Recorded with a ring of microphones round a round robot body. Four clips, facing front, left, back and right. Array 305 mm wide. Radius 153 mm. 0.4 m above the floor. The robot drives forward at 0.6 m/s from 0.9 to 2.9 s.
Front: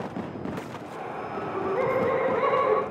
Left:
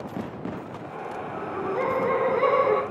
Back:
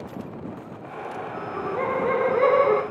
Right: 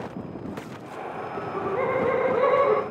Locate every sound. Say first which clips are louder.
1.4 s laughter: right 1 dB, front 2 dB; 25° right, 0.9 m; by 2.8 s 165° right, 1.1 m